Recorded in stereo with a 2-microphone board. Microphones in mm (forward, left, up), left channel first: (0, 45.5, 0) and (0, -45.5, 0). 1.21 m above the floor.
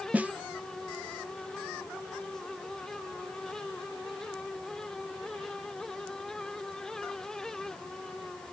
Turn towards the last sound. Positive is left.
turn(degrees=-15)  # may be behind; listen again after turning